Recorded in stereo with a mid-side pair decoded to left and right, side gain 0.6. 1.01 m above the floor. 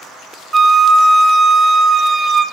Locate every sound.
0.5 s a flute: 20° right, 0.5 m